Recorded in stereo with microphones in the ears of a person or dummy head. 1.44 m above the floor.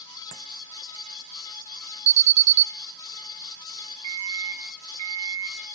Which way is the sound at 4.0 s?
30° right (ahead or behind).